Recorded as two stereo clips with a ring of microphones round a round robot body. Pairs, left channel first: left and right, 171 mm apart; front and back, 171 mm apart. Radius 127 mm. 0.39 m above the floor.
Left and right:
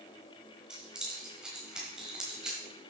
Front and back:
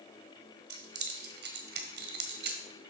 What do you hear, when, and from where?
0.7 s keys jangling: 175° right, 1.4 m